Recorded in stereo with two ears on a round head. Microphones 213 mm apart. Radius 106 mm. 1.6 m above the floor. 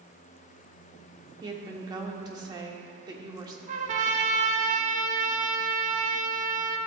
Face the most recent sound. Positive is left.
turn(degrees=-35)  # may be behind; listen again after turning